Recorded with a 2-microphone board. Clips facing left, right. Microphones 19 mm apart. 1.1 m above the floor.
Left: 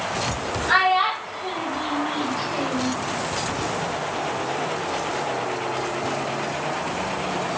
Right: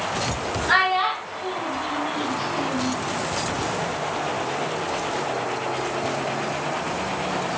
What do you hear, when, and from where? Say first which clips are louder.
0.7 s a child speaking: left 1 dB; 10° right (ahead or behind), 0.6 m; by 2.9 s 75° left (ahead or behind), 1.2 m